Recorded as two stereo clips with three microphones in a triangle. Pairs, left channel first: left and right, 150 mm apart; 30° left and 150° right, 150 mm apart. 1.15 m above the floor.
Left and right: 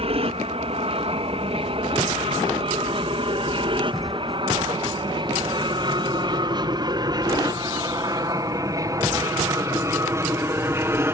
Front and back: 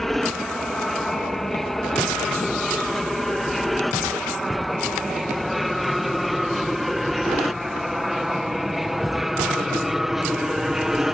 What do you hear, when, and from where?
0.0 s an aircraft: 60° right; by 11.1 s 70° right